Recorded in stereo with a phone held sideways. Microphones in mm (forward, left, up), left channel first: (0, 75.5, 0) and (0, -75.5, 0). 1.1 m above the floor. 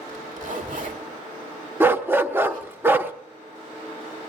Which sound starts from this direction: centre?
A dog barking, at 1.8 s.